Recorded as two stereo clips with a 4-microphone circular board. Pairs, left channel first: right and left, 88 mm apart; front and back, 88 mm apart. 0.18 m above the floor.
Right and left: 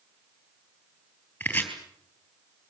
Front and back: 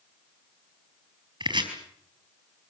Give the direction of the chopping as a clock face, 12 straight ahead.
5 o'clock.